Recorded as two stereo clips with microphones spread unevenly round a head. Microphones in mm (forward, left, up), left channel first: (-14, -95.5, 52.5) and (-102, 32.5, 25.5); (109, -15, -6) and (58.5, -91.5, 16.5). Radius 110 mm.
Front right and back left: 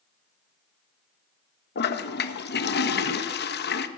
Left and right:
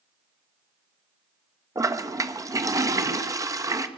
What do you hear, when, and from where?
1.8 s a toilet flushing: 65° right, 1.4 m